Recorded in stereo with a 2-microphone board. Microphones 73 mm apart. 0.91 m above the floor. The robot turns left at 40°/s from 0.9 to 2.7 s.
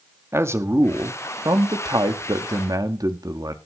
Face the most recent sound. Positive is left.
turn(degrees=-115)